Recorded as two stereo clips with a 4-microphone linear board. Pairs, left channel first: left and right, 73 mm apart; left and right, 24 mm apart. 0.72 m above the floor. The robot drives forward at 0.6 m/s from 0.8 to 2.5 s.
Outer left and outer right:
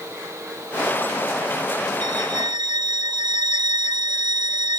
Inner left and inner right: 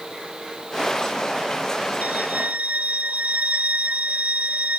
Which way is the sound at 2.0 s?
85° right.